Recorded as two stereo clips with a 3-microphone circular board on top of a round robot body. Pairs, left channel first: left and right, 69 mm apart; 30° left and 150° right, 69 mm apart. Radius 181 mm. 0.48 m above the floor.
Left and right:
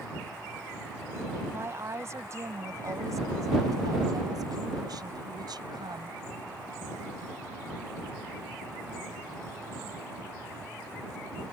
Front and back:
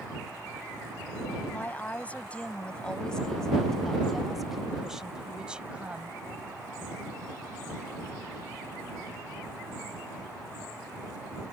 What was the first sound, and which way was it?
A woman speaking, 35° right.